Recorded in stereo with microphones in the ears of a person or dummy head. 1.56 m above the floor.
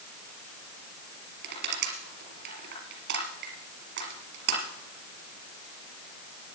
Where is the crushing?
65° right (ahead or behind), 4.5 m.